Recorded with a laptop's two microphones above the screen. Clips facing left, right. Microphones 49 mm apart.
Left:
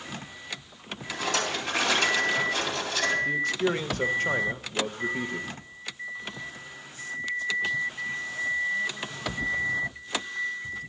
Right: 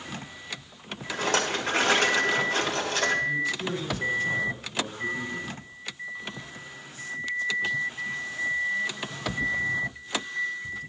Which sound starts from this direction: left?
A man speaking, at 3.2 s.